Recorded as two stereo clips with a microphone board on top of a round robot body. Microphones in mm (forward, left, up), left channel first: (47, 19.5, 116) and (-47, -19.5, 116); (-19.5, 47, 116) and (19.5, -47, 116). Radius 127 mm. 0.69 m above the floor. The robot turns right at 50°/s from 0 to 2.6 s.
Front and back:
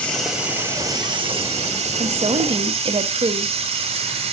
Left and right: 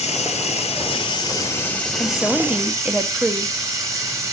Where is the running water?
100° left, 2 m; by 4.3 s 130° right, 2 m.